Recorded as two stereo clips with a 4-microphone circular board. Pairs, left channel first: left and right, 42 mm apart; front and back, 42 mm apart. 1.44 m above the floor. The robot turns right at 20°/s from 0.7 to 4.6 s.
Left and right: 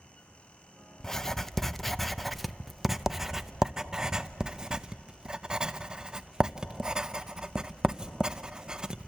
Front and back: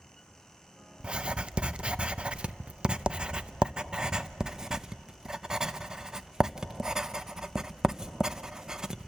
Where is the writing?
155° left, 0.6 m; by 9.1 s 130° right, 0.6 m.